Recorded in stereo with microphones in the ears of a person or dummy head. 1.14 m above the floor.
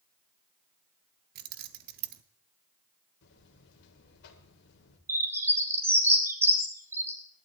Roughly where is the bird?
Centre.